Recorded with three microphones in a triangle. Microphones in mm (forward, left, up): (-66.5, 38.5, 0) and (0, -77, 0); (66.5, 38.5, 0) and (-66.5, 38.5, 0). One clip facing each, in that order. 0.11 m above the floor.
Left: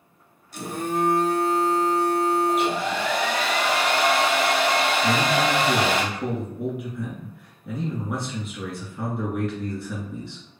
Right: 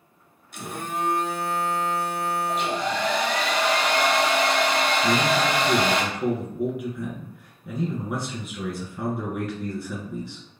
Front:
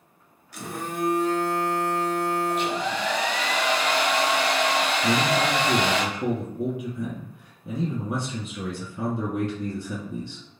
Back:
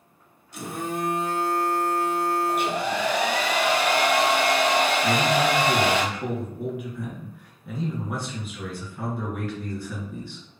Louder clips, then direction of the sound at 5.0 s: Even, back 1 dB; 30° left.